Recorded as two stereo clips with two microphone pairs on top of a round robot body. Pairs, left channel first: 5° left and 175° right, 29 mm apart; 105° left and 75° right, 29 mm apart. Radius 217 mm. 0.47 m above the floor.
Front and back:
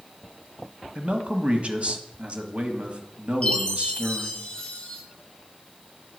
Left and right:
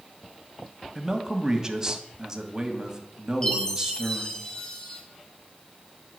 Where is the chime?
55° left, 2 m.